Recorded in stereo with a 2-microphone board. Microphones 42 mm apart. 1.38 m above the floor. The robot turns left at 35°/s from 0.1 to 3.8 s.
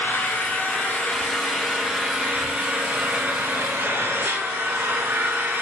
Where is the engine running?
60° left, 8 m; by 5.6 s 70° right, 8 m.